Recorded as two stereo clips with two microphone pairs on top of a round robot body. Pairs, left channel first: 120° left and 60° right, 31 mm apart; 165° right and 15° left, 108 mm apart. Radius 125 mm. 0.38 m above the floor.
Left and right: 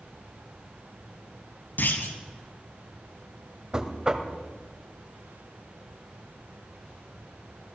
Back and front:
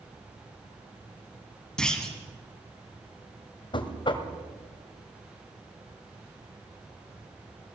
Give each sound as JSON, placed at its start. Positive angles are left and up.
{"t": 1.8, "sound": "a clunk", "azimuth_deg": 110, "distance_m": 2.5}
{"t": 3.7, "sound": "knocking", "azimuth_deg": -120, "distance_m": 1.9}